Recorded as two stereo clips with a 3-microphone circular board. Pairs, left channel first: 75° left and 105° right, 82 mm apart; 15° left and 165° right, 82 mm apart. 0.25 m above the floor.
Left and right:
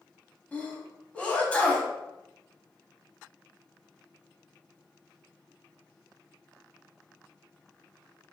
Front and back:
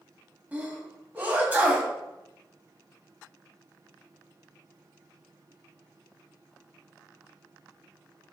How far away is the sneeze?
About 1.2 m.